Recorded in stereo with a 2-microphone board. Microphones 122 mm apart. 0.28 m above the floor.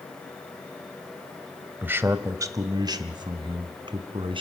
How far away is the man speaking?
About 1.1 m.